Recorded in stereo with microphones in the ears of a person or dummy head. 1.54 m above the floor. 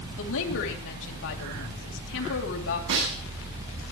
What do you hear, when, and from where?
0.2 s a woman speaking: 75° left (ahead or behind), 3 m
2.9 s a snare drum: 65° right (ahead or behind), 9.5 m